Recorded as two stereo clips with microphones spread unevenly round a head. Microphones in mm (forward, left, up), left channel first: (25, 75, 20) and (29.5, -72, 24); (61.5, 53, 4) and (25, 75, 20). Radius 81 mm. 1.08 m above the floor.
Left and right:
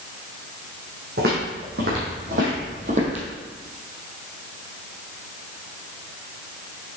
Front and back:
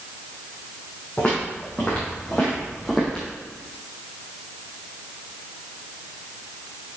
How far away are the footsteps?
About 3.5 m.